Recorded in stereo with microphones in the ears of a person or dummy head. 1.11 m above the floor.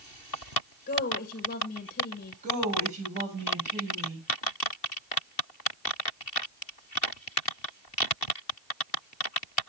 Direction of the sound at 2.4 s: 45° right (ahead or behind).